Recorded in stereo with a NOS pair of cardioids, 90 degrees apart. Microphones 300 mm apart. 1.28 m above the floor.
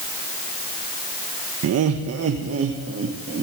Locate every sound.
1.6 s laughter: 65° right, 1.6 m; by 3.4 s 40° right, 2 m